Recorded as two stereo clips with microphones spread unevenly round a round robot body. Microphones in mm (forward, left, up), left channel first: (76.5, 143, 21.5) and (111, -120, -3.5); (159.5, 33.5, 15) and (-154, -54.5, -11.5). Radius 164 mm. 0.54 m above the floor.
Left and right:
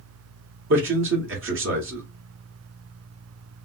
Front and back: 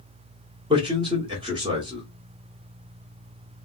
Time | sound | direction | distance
0.7 | a man speaking | 95° right | 1.0 m